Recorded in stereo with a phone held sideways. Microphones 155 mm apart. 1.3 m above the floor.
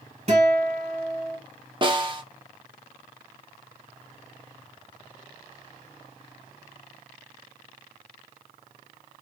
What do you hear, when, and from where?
0.3 s a guitar: 45° right (ahead or behind), 1.3 m
1.8 s a snare drum: 30° right (ahead or behind), 0.6 m